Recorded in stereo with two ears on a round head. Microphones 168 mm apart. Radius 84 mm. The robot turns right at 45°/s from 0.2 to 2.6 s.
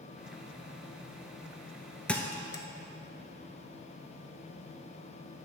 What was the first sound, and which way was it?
A thud, 5° left (ahead or behind).